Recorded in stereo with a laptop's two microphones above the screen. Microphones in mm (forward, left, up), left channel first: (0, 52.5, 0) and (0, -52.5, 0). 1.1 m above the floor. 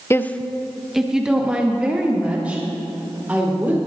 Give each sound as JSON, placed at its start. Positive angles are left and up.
{"t": 0.1, "sound": "a woman speaking", "side_deg": 25, "distance_m": 0.6}